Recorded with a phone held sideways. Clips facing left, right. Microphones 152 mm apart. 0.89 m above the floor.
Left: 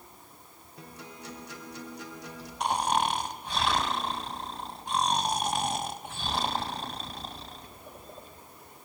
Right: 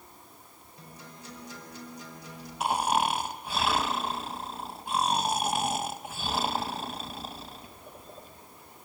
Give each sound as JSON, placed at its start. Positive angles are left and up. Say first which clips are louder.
{"t": 0.8, "sound": "a guitar", "louder": "left 3 dB", "side_deg": 70, "distance_m": 3.0}
{"t": 2.6, "sound": "snoring", "louder": "right 1 dB", "side_deg": -5, "distance_m": 0.7}